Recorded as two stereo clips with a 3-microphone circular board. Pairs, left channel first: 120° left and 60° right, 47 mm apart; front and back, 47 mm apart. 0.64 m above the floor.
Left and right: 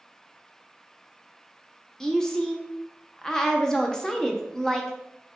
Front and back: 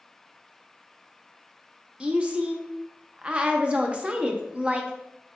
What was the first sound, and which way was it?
A woman speaking, straight behind.